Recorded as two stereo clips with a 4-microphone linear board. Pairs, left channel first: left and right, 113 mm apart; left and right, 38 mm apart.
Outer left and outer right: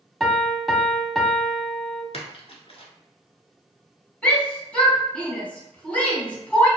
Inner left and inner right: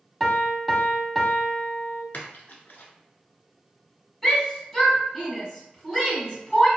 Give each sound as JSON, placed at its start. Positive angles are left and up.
{"t": 0.2, "sound": "a piano", "side_deg": 0, "distance_m": 0.5}
{"t": 2.1, "sound": "a splash", "side_deg": 60, "distance_m": 0.8}
{"t": 4.2, "sound": "a shout", "side_deg": 10, "distance_m": 1.4}